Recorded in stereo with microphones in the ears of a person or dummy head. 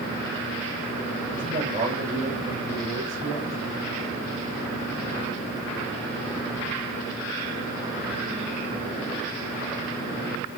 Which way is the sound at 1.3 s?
40° right (ahead or behind).